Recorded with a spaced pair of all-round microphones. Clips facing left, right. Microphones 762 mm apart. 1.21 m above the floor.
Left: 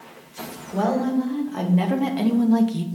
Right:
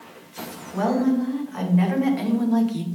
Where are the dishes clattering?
No dishes clattering in this recording.